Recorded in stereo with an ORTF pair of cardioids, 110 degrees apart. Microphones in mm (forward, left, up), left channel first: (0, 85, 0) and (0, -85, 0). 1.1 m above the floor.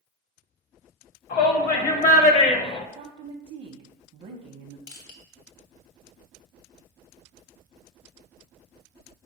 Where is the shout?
60° left, 1.2 m; by 2.9 s 25° left, 0.5 m.